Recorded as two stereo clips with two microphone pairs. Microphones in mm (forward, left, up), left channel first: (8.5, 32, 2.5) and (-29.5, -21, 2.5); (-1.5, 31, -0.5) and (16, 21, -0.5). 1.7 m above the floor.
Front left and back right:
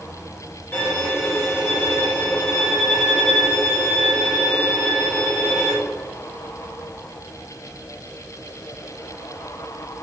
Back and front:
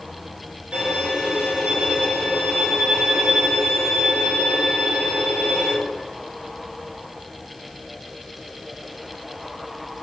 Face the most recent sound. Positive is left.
turn(degrees=-5)